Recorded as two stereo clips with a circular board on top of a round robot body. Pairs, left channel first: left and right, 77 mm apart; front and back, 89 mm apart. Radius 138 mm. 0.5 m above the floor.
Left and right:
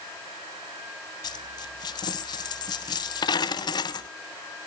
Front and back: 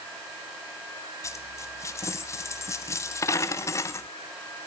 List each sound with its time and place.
1.2 s a dropped coin: 60° left, 0.6 m